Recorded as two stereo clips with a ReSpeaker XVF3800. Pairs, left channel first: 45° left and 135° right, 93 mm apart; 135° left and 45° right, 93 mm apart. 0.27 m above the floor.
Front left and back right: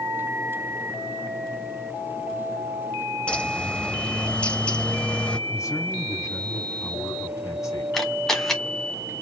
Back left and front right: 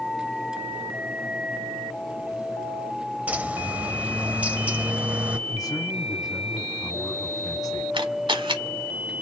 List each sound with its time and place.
3.3 s a bird: 5° right, 0.6 m
5.5 s a man speaking: 95° left, 1.9 m
7.9 s a camera shutter: 40° right, 1.4 m